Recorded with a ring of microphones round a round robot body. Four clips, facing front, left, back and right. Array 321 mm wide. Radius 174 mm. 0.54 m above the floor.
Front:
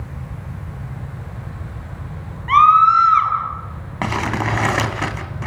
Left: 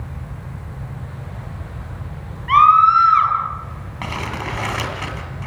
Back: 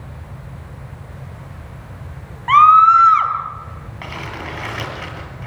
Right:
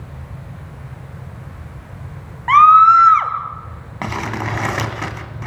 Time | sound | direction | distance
2.5 | a scream | 115° right | 3.5 m
4.0 | crumpling | 20° right | 2.5 m